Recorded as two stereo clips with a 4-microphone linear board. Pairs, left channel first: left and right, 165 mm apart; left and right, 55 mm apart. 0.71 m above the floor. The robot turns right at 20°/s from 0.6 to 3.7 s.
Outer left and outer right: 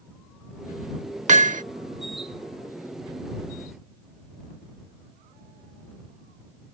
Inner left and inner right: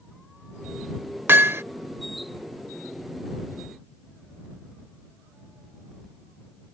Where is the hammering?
45° right (ahead or behind); by 1.6 s 50° right (ahead or behind).